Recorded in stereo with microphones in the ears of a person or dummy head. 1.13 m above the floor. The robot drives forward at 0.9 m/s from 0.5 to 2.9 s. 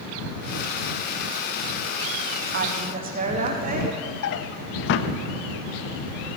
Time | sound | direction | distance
2.5 | a woman speaking | 50° right (ahead or behind) | 0.9 m
4.2 | a drawer | 65° left (ahead or behind) | 0.5 m